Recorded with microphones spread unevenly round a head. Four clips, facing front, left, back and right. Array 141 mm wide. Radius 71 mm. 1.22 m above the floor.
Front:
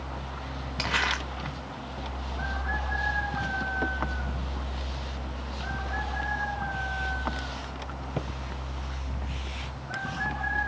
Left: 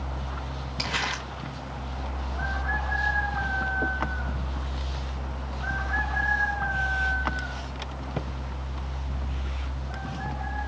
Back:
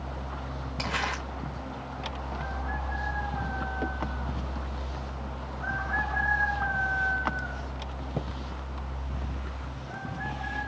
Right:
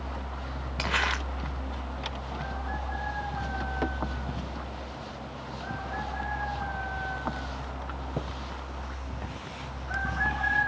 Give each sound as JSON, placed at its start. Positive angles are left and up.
{"t": 0.8, "sound": "crumpling", "azimuth_deg": -70, "distance_m": 0.9}